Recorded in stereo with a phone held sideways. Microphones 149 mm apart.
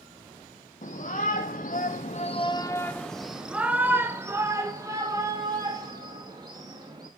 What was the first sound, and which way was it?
A shout, 60° left (ahead or behind).